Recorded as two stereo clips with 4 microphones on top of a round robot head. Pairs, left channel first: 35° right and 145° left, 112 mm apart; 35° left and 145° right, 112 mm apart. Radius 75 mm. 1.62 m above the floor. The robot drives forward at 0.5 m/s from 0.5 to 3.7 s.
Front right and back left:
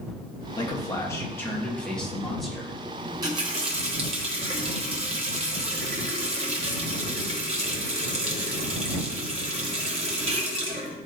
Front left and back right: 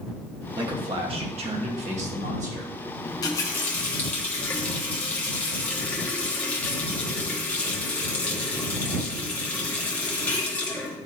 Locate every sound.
0.6 s a man speaking: 90° right, 1.4 m; by 2.7 s 130° right, 1.8 m
3.0 s a running tap: 85° left, 0.9 m; by 11.0 s 110° left, 0.9 m